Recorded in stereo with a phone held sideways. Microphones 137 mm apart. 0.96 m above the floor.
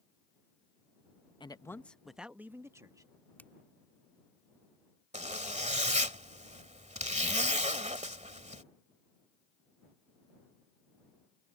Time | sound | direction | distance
1.4 | a man speaking | 35° left (ahead or behind) | ?
3.4 | a finger snap | 10° left (ahead or behind) | ?
5.1 | a zipper | 55° right (ahead or behind) | ?